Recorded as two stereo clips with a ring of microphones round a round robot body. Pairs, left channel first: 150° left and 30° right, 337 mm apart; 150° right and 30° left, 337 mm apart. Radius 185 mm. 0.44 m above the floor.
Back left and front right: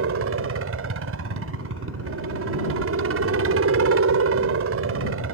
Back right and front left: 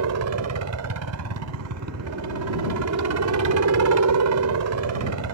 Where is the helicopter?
10° left.